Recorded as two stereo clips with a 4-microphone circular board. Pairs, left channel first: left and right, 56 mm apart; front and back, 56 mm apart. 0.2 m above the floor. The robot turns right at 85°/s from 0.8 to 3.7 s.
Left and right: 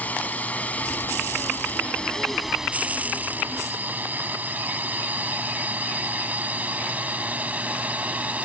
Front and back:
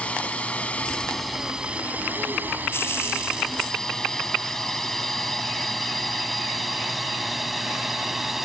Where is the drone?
50° left; by 8.5 s 100° right.